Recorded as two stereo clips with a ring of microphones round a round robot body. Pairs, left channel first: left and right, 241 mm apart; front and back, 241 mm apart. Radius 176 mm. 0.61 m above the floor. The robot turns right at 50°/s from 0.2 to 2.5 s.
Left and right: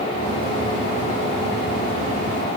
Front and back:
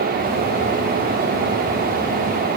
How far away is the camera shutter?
No camera shutter in this recording.